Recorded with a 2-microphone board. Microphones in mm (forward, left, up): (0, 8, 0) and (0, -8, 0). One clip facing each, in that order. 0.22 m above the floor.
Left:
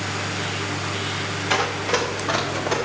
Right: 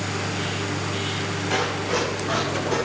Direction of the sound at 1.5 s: 35° left (ahead or behind).